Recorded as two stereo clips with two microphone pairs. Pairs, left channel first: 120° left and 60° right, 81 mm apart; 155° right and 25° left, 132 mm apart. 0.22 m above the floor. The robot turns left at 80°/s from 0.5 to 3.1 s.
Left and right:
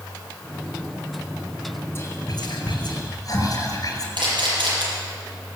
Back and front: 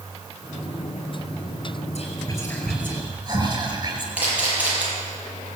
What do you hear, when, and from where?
1.9 s whispering: 175° left, 4.5 m; by 4.1 s 80° left, 4.5 m
4.2 s a camera shutter: 55° right, 7 m